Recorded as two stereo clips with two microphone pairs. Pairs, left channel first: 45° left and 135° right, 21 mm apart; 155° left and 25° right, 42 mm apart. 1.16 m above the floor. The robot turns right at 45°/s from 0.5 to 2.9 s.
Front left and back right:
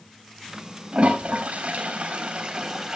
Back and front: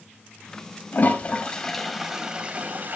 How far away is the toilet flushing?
About 3.5 m.